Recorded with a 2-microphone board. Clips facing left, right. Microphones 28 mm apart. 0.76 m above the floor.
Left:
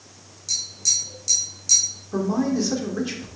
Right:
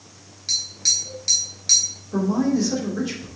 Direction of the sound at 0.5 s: 45° right (ahead or behind).